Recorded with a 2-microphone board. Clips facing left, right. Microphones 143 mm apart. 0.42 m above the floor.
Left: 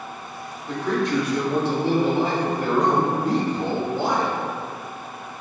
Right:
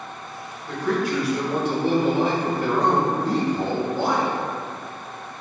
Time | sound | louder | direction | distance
0.7 | a man speaking | even | 5° left (ahead or behind) | 1.0 m